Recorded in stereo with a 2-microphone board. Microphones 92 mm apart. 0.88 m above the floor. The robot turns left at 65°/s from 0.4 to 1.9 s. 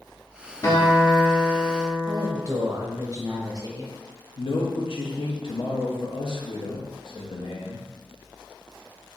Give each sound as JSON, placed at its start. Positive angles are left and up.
{"t": 0.6, "sound": "a guitar", "azimuth_deg": 145, "distance_m": 0.8}
{"t": 2.1, "sound": "a woman speaking", "side_deg": -35, "distance_m": 0.7}
{"t": 4.4, "sound": "a man speaking", "side_deg": 60, "distance_m": 0.8}